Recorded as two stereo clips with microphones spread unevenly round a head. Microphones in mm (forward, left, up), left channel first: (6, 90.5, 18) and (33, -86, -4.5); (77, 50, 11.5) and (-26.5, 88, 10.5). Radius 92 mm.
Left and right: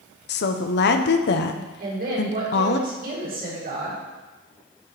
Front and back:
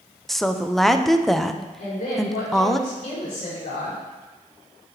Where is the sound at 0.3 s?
70° left, 0.8 m.